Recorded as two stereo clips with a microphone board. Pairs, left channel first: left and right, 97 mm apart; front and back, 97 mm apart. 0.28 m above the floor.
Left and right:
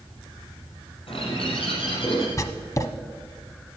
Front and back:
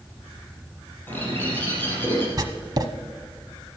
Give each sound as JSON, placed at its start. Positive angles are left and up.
{"t": 1.1, "sound": "a bird", "azimuth_deg": 70, "distance_m": 4.0}
{"t": 2.4, "sound": "writing", "azimuth_deg": 140, "distance_m": 0.9}